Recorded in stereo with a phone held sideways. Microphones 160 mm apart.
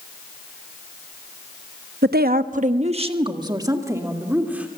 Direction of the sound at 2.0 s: 70° right (ahead or behind).